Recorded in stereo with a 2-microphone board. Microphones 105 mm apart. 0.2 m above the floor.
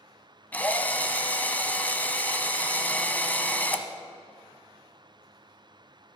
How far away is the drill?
About 0.7 m.